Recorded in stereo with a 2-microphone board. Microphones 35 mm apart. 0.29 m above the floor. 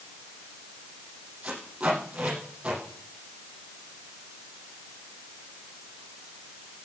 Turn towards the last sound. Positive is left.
turn(degrees=-40)  # may be behind; listen again after turning